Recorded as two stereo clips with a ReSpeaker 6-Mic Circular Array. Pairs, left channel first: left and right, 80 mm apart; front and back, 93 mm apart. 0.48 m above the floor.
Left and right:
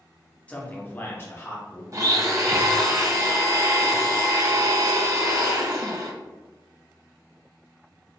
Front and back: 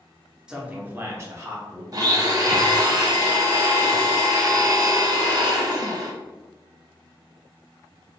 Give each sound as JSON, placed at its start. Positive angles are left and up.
{"t": 0.5, "sound": "a man speaking", "azimuth_deg": 115, "distance_m": 0.7}
{"t": 1.9, "sound": "a blender", "azimuth_deg": -135, "distance_m": 0.6}